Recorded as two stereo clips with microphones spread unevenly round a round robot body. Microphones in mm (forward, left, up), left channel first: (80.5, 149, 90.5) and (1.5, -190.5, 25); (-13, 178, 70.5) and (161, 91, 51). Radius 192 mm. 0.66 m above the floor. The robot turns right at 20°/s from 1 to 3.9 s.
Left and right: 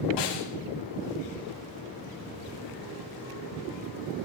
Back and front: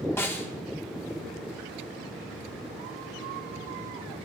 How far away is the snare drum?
About 2 m.